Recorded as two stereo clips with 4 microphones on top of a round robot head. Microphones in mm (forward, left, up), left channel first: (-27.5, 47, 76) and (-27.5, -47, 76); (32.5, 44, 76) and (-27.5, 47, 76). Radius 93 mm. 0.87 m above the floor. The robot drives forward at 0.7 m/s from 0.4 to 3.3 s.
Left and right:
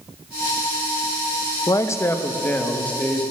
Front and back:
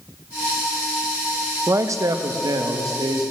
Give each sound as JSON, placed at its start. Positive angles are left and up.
{"t": 1.7, "sound": "a man speaking", "azimuth_deg": 140, "distance_m": 0.5}